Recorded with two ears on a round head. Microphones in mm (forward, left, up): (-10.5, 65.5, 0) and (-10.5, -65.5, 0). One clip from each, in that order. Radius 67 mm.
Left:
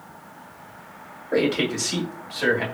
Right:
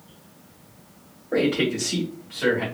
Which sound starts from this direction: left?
A man speaking, at 1.3 s.